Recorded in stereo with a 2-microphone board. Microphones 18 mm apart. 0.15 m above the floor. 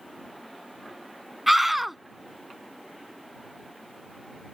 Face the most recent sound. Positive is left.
turn(degrees=-10)  # may be behind; listen again after turning